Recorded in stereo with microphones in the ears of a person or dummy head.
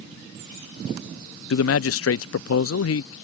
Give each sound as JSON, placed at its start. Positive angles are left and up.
{"t": 1.5, "sound": "a man speaking", "side_deg": 75}